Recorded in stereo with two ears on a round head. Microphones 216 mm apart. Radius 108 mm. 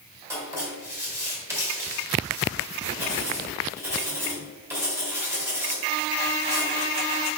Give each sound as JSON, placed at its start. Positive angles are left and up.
{"t": 0.3, "sound": "writing", "side_deg": -10, "distance_m": 2.5}